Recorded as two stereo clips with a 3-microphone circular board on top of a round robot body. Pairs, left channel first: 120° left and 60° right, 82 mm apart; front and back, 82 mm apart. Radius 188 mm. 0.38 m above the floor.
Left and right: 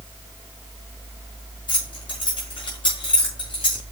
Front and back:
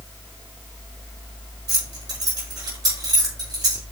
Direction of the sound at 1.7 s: 140° left.